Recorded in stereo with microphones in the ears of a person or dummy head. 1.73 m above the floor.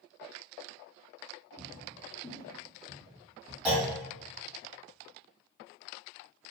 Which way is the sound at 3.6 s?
10° right (ahead or behind).